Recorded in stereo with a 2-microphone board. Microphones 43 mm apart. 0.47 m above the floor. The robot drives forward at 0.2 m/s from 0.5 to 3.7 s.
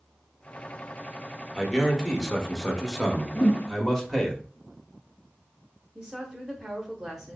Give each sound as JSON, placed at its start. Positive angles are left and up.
{"t": 1.6, "sound": "a man speaking", "side_deg": 15, "distance_m": 1.0}
{"t": 3.4, "sound": "a whoosh", "side_deg": 35, "distance_m": 1.1}
{"t": 6.0, "sound": "a woman speaking", "side_deg": -15, "distance_m": 0.8}